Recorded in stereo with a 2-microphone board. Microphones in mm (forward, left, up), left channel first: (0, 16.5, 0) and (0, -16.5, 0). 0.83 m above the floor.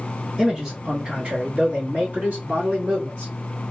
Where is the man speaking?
10° right (ahead or behind), 1.0 m; by 3.3 s 65° right (ahead or behind), 2 m.